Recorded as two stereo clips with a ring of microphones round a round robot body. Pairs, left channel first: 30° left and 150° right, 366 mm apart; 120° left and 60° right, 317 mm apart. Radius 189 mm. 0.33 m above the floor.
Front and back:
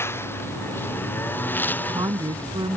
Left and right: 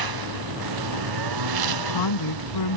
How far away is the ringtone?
I don't hear a ringtone.